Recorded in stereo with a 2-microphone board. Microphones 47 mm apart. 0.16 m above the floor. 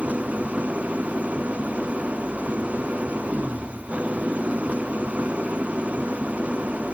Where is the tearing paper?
No tearing paper in this recording.